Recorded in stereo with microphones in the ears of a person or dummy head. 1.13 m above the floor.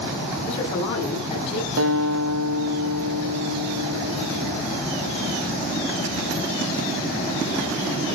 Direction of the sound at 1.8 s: 70° right (ahead or behind).